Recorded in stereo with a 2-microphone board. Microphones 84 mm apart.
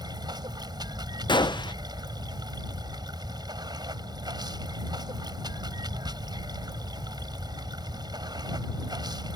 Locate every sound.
0.0 s running water: 65° right (ahead or behind)
1.3 s a gunshot: 85° left